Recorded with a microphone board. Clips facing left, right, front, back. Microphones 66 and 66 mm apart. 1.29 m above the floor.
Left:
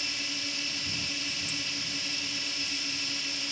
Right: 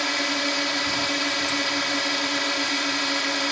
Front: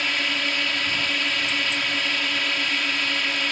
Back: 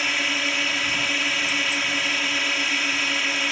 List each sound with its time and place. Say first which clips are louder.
0.0 s a drone: right 13 dB, back 1 dB; 95° right